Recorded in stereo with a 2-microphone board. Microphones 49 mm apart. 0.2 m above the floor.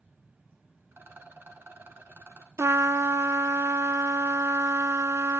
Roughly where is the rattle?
Right.